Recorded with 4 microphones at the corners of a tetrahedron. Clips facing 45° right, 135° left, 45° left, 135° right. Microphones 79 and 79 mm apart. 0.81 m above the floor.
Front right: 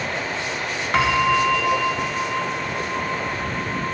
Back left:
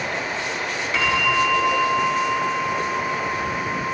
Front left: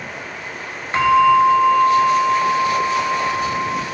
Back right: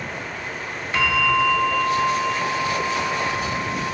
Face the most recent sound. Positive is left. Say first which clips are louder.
# front right 3 dB, front left 8 dB
turn(degrees=-15)